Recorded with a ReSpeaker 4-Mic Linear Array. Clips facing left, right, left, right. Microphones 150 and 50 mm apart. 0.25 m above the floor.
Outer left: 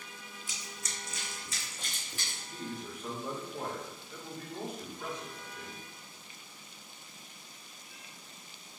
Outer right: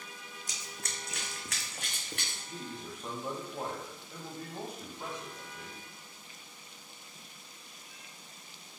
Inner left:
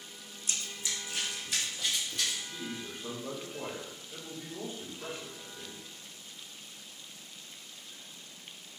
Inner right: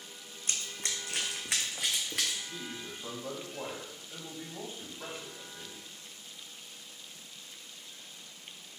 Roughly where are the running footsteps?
Right.